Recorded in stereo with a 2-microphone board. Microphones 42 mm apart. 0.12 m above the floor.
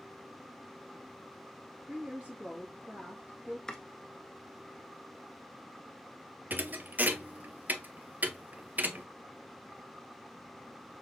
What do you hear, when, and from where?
1.9 s a woman speaking: 30° right (ahead or behind), 2 m
3.7 s chopping: 15° left (ahead or behind), 0.9 m
6.5 s a thud: 45° right (ahead or behind), 0.6 m